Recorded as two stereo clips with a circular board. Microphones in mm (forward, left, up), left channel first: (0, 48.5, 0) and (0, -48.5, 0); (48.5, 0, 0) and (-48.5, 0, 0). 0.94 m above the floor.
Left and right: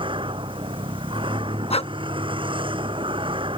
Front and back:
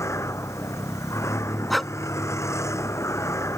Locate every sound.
0.0 s a vehicle: 60° right
1.7 s breathing: 90° left